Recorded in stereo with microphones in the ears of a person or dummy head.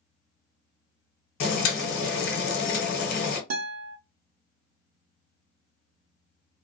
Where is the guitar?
85° right, 0.8 m.